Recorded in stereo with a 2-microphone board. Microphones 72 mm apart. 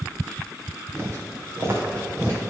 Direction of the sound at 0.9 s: 35° right (ahead or behind).